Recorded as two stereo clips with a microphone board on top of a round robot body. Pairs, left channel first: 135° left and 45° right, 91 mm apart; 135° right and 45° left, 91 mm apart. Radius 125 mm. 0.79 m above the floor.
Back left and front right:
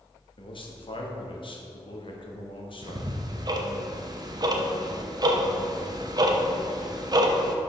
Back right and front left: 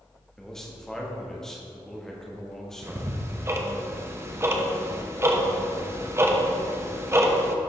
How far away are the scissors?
No scissors in this recording.